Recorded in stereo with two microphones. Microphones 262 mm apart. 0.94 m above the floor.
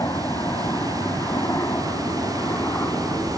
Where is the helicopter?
15° left (ahead or behind); by 3.4 s 10° left (ahead or behind).